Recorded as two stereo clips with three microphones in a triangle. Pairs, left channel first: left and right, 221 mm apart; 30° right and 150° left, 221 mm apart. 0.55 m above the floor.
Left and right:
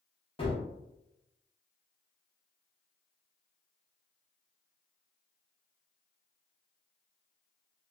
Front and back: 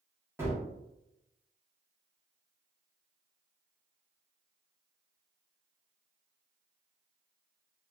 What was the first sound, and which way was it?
A gunshot, 90° left.